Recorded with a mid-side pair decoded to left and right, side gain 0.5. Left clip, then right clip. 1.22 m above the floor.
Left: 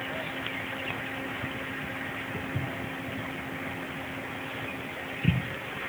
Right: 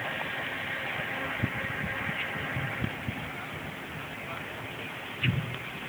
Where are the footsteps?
55° left, 6 m; by 5.9 s 35° left, 3 m.